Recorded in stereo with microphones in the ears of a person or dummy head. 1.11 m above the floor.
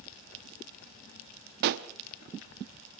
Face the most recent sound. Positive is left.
turn(degrees=-50)  # may be behind; listen again after turning